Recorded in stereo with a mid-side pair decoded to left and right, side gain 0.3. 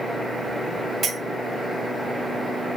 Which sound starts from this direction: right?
A clink, at 1.0 s.